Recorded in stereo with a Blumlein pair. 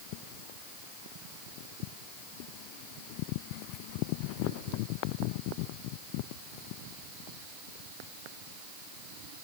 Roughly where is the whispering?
I don't hear whispering.